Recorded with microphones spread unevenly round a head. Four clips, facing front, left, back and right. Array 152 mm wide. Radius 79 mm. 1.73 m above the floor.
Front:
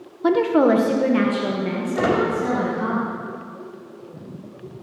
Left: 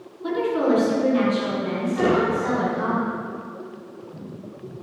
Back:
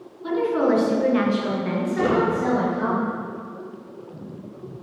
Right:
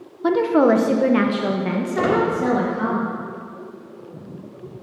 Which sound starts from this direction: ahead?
A squeak, at 1.9 s.